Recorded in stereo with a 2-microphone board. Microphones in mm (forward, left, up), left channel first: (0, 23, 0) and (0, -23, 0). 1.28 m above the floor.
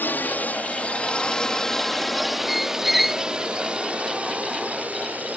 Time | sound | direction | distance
0.0 | a drone | 45° left (ahead or behind) | ?
2.5 | a squeak | 5° right (ahead or behind) | ?